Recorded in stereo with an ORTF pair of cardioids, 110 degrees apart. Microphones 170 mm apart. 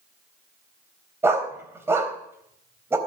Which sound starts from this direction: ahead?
A dog barking, at 1.2 s.